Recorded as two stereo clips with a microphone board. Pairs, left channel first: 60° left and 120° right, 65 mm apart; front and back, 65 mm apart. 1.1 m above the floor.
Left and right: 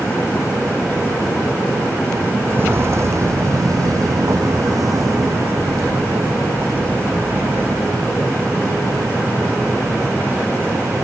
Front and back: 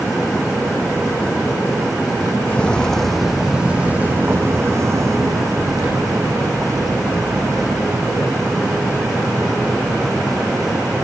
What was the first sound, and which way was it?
Footsteps, 65° right.